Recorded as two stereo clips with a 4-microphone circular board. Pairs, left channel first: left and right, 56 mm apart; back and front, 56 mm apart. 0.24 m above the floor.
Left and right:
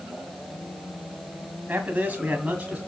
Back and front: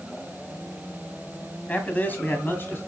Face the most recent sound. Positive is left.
turn(degrees=-150)